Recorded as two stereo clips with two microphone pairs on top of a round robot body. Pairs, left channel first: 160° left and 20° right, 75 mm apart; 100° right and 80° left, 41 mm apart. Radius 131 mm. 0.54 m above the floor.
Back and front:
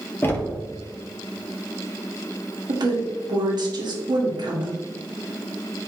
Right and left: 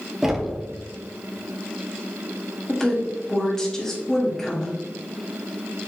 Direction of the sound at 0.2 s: 155° left.